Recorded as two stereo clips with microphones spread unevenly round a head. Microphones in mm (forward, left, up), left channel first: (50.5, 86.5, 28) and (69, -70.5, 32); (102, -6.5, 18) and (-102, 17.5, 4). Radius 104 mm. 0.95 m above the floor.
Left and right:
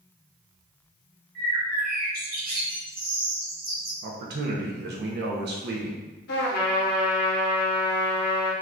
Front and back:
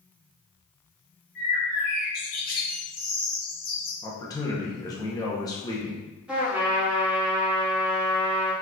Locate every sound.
1.4 s a bird: 55° right, 1.4 m
4.0 s a man speaking: 80° right, 0.9 m
6.3 s a trumpet: 85° left, 0.8 m